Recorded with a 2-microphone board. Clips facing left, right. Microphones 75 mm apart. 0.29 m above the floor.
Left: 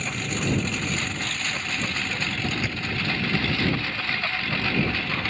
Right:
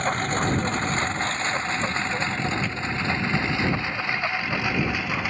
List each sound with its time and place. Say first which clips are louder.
0.0 s a lawn mower: right 5 dB; 45° right (ahead or behind); by 5.3 s 10° right (ahead or behind)
2.6 s a thud: right 2 dB; 10° left (ahead or behind)